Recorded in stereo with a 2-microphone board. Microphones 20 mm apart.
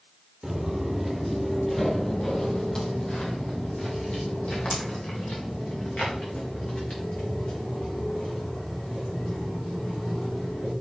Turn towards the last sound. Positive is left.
turn(degrees=75)  # may be behind; listen again after turning